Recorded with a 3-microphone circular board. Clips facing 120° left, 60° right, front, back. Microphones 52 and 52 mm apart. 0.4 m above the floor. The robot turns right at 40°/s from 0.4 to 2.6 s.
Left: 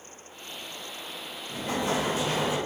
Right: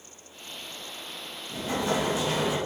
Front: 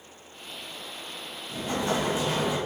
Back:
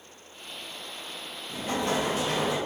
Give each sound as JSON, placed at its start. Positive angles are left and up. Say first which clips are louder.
{"t": 1.5, "sound": "an explosion", "louder": "right 1 dB, even", "azimuth_deg": 135, "distance_m": 1.9}